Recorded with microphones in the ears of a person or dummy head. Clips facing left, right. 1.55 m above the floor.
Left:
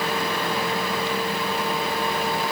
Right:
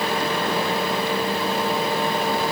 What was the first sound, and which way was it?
Only background noise.